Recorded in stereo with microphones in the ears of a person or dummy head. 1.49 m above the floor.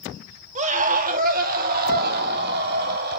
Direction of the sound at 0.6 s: 40° right (ahead or behind).